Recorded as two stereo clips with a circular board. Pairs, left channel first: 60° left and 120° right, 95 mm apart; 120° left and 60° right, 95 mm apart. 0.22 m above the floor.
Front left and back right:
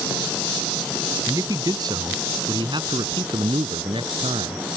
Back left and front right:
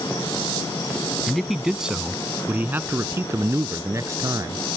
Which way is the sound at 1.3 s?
155° right.